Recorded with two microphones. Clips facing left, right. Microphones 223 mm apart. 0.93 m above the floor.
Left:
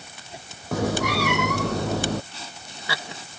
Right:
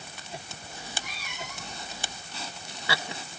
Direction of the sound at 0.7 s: 80° left.